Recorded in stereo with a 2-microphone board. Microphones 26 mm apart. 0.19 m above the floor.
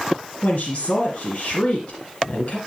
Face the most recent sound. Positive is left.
turn(degrees=55)  # may be behind; listen again after turning